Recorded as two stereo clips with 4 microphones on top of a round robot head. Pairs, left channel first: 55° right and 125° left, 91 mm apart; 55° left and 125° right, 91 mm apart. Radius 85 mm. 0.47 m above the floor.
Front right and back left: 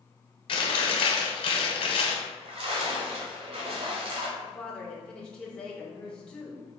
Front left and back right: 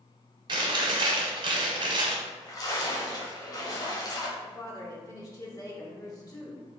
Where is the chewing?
90° right, 0.9 m.